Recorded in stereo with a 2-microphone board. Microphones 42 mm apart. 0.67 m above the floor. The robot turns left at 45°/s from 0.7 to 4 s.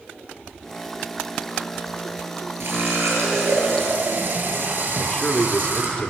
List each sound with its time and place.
2.6 s a running tap: 65° right, 9 m; by 6.0 s 125° right, 9 m
5.0 s a man speaking: 25° left (ahead or behind), 1.6 m